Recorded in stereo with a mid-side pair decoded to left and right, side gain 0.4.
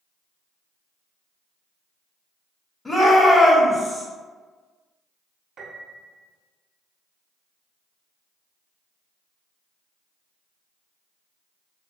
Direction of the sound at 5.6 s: 60° right.